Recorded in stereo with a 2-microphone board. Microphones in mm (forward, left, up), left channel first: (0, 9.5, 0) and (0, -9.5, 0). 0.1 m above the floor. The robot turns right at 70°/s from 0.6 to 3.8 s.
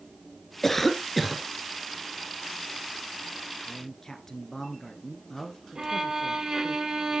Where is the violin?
35° right (ahead or behind), 1.2 m.